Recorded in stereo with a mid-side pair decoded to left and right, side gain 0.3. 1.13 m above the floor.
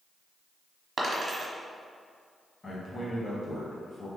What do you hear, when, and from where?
1.0 s a dropped coin: 60° right, 1.3 m
2.6 s a man speaking: 35° left, 1.5 m